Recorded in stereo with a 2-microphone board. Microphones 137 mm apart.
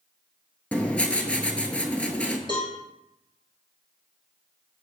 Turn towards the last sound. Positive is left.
turn(degrees=35)  # may be behind; listen again after turning